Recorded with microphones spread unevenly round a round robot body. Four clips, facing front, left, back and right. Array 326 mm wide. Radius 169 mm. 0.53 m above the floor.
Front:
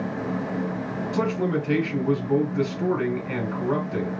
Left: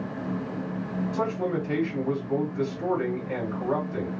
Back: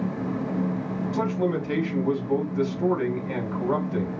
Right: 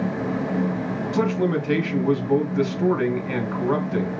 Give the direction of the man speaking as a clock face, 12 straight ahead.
2 o'clock.